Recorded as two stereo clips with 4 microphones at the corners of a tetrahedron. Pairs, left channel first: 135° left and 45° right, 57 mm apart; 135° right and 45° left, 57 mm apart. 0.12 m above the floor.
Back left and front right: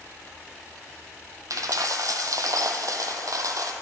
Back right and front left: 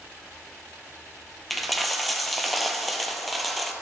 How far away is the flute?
No flute in this recording.